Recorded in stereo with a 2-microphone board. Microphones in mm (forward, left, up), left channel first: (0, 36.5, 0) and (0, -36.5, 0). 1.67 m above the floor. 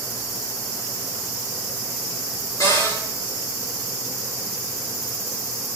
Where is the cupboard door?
55° left (ahead or behind), 5.5 m.